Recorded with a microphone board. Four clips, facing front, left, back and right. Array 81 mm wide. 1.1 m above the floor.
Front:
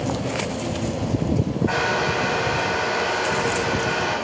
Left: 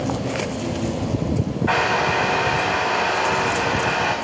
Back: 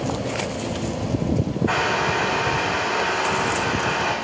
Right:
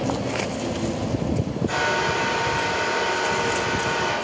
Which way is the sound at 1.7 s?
95° left.